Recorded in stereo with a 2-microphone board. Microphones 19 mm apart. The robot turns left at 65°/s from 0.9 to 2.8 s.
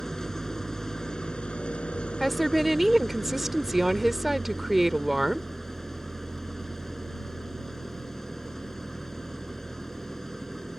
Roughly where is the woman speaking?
Ahead.